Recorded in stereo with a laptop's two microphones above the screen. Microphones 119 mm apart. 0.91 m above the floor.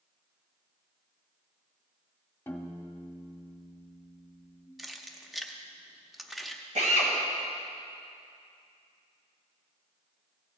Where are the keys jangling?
Centre (ahead or behind), 0.8 m.